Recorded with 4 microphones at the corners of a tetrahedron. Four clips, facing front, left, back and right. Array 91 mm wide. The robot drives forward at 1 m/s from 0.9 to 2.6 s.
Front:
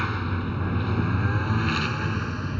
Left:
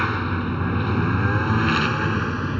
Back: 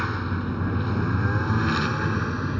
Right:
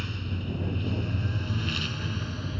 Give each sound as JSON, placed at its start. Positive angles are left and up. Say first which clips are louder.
{"t": 0.0, "sound": "a lawn mower", "louder": "left 13 dB, back 1 dB", "azimuth_deg": 100}